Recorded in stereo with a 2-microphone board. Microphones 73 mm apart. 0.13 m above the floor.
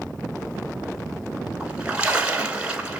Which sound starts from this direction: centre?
A splash, at 1.6 s.